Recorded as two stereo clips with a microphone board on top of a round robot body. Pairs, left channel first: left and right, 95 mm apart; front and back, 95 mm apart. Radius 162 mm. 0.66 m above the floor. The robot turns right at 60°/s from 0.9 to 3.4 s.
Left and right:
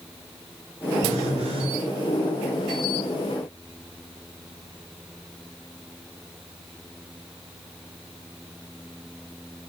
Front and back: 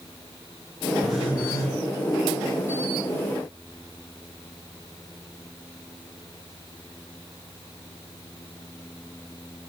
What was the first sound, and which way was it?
A phone buzzing, 100° right.